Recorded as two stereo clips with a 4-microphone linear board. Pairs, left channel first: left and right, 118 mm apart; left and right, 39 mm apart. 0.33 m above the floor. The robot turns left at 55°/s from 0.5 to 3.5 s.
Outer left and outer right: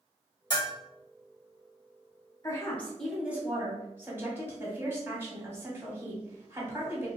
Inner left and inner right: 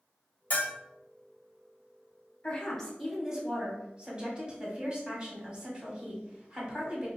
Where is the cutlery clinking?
I don't hear cutlery clinking.